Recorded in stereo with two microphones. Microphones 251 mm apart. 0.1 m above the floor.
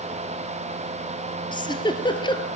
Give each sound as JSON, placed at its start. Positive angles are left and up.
{"t": 1.5, "sound": "a giggle", "side_deg": 20, "distance_m": 1.7}